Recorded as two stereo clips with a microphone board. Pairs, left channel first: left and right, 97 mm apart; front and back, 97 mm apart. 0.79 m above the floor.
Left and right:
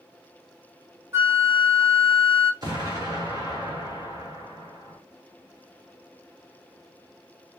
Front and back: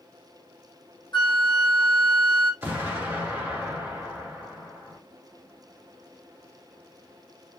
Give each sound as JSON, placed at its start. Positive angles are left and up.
{"t": 1.1, "sound": "a flute", "azimuth_deg": -30, "distance_m": 0.9}
{"t": 2.6, "sound": "an explosion", "azimuth_deg": -115, "distance_m": 1.5}